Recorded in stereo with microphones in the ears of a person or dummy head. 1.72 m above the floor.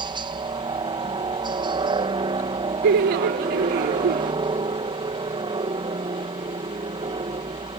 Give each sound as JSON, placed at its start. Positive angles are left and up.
{"t": 0.0, "sound": "a helicopter", "side_deg": -20}
{"t": 2.8, "sound": "laughter", "side_deg": -40}